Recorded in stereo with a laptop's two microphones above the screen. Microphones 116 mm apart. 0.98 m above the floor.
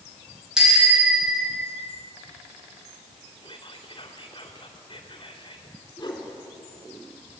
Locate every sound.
0.6 s a bicycle bell: 5° right (ahead or behind), 5 m
3.4 s whispering: 35° left (ahead or behind), 2.5 m
6.0 s a whoosh: 40° left (ahead or behind), 3.5 m